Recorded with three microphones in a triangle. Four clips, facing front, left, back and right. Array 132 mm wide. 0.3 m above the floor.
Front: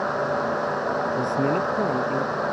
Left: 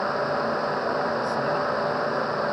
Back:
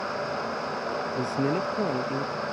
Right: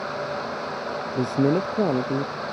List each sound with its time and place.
1.1 s a man speaking: 90° right